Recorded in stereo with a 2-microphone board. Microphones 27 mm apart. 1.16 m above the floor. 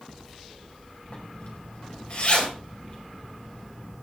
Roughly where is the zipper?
Left.